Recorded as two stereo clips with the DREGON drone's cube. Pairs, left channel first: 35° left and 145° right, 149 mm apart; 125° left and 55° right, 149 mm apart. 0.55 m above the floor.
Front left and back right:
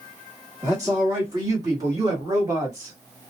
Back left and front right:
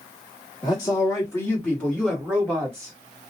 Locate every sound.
0.6 s a man speaking: 155° left, 1.6 m; by 3.0 s 105° right, 1.4 m